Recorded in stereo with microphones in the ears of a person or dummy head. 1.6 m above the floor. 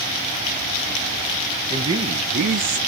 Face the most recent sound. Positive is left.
turn(degrees=-45)  # may be behind; listen again after turning